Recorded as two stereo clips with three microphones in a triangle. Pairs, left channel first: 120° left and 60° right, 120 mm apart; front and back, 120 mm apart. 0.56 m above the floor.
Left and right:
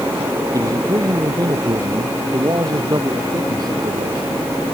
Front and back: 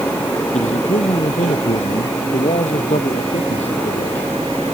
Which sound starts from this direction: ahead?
A man speaking, at 0.5 s.